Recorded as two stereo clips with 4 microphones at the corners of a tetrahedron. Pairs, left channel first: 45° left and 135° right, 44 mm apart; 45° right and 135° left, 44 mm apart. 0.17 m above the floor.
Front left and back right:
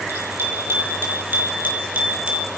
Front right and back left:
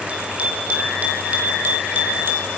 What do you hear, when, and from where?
0.1 s a bicycle bell: 165° right, 5 m; by 2.5 s 160° left, 3 m